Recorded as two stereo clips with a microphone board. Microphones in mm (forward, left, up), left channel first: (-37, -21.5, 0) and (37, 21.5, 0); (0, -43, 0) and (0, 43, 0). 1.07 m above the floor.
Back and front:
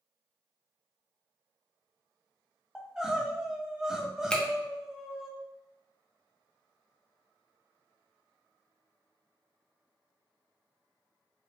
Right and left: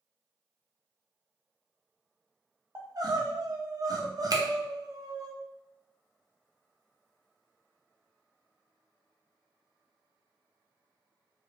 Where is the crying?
110° left, 0.7 m.